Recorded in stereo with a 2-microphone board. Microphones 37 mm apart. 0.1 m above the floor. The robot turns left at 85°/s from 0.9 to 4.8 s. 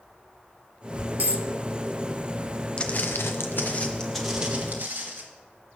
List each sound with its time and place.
1.2 s a dropped coin: 55° right (ahead or behind), 1.1 m; by 1.5 s 45° right (ahead or behind), 1.1 m
2.8 s footsteps: 20° left (ahead or behind), 1.1 m; by 5.2 s 55° right (ahead or behind), 4 m